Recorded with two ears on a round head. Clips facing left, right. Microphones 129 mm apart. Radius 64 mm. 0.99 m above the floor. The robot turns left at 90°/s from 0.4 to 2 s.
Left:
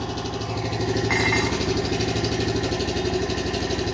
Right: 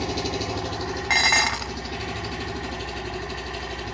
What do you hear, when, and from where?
0.0 s an engine running: 170° right, 1.2 m; by 3.9 s 50° left, 1.2 m
1.1 s dishes clattering: 35° right, 0.7 m; by 1.7 s 90° right, 0.7 m